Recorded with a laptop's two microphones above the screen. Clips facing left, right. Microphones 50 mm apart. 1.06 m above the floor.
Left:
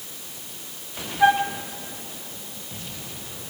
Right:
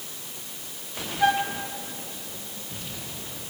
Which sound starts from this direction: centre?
A flute, at 1.2 s.